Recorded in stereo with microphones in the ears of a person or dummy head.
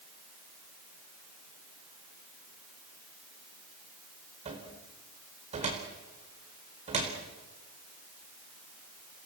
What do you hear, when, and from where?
4.5 s a cupboard door: 35° right (ahead or behind), 4 m